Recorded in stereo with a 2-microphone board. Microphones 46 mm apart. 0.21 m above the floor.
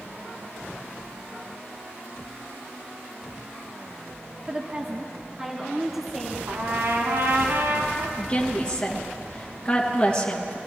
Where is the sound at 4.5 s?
25° right (ahead or behind), 1.2 m; by 6.4 s 10° right (ahead or behind), 3 m.